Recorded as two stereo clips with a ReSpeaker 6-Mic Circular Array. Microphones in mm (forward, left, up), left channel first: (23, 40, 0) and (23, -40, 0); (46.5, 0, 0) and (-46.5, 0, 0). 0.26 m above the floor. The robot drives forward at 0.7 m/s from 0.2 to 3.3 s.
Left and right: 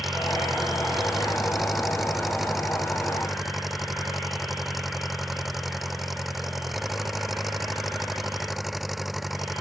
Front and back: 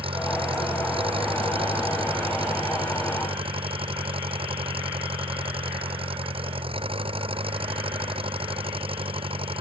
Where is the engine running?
Straight behind.